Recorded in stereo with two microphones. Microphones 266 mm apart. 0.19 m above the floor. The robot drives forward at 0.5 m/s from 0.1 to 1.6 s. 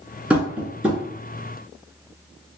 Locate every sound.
0.3 s tapping: 5° right (ahead or behind), 0.7 m